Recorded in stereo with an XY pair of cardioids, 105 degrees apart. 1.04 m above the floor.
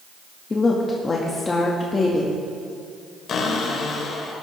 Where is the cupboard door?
60° left, 2 m.